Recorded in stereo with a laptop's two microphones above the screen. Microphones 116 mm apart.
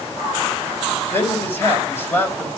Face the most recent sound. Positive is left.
turn(degrees=20)  # may be behind; listen again after turning